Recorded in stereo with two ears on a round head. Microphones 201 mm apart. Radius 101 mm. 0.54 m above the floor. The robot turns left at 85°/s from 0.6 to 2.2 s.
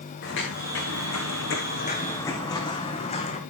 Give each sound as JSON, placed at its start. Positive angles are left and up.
{"t": 0.2, "sound": "footsteps", "side_deg": 60, "distance_m": 3.0}